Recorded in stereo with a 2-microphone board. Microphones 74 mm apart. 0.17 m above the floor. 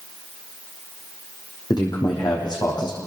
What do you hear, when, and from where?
1.7 s a man speaking: 80° left, 8.5 m